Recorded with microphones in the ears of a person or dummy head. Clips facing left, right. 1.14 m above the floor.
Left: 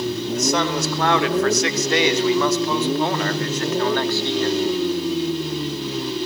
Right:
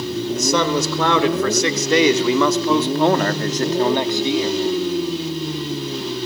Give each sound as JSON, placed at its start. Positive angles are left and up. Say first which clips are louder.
{"t": 0.3, "sound": "a man speaking", "louder": "right 3 dB", "side_deg": -90, "distance_m": 3.5}